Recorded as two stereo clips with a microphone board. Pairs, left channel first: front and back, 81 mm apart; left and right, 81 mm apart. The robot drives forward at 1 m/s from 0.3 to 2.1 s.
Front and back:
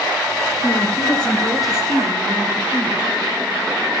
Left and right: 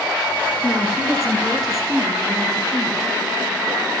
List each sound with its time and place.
0.6 s a woman speaking: 5° right, 1.9 m; by 3.0 s 170° right, 1.7 m